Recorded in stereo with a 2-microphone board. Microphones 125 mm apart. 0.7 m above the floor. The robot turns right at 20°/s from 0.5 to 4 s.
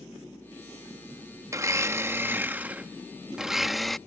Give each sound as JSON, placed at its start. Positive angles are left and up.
{"t": 1.5, "sound": "a blender", "azimuth_deg": -45}